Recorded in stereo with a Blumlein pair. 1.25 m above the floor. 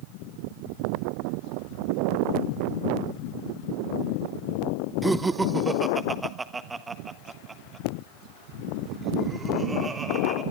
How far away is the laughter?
About 0.7 m.